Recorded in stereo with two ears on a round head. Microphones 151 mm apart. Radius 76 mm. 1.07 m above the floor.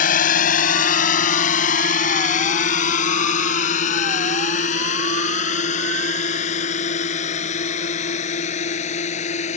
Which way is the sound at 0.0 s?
50° left (ahead or behind).